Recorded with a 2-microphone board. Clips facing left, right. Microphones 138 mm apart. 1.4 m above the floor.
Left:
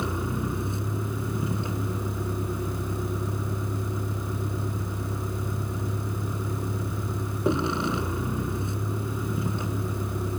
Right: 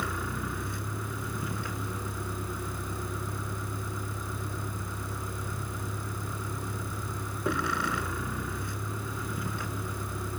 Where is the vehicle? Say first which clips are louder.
Left 5 dB; 25° left (ahead or behind).